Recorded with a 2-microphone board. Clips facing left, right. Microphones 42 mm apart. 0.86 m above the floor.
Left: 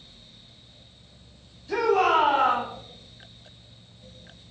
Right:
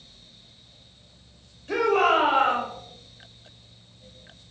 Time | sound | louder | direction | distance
1.7 | a shout | even | 50° right (ahead or behind) | 5 m